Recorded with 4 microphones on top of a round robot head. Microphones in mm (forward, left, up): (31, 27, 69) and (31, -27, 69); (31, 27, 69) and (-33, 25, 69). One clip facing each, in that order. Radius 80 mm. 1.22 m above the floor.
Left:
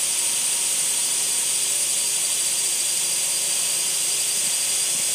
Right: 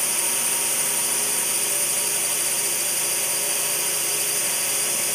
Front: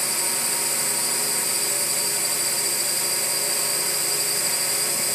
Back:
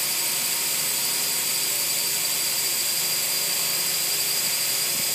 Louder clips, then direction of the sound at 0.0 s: Right 3 dB, front 3 dB; 50° right.